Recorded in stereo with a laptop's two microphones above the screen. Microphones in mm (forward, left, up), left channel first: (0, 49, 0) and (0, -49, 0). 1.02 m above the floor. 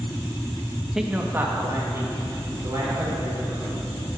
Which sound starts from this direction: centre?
A man speaking, at 0.9 s.